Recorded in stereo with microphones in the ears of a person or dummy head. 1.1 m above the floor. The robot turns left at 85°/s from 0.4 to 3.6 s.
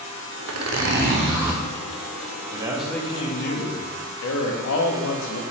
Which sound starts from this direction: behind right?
A man speaking, at 2.5 s.